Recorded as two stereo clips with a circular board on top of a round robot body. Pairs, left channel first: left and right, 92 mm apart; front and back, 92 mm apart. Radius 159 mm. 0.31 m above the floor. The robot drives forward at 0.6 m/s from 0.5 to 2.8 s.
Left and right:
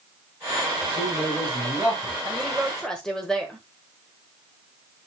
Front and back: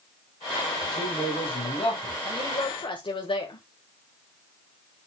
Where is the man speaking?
5° right, 5.5 m.